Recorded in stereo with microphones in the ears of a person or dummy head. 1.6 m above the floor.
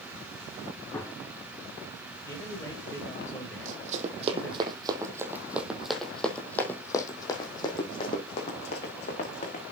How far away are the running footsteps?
About 4 m.